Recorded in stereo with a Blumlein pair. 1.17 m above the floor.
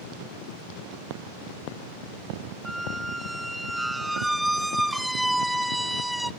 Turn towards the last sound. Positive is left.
turn(degrees=0)